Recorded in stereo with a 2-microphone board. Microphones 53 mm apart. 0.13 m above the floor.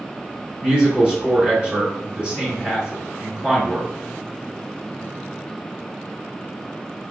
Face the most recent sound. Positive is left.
turn(degrees=-20)  # may be behind; listen again after turning